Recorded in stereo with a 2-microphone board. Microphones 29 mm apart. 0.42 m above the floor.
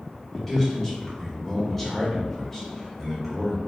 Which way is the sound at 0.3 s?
5° left (ahead or behind).